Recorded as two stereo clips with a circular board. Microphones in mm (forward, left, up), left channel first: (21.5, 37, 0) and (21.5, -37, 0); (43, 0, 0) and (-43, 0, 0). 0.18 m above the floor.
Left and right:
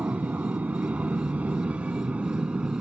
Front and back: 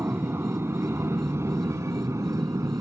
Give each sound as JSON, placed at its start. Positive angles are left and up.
{"t": 0.0, "sound": "an aircraft", "azimuth_deg": -140}